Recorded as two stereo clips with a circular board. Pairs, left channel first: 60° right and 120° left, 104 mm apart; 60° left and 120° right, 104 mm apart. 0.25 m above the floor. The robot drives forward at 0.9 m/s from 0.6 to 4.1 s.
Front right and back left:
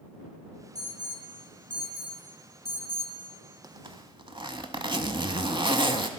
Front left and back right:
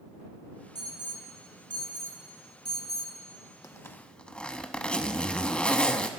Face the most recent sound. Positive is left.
turn(degrees=135)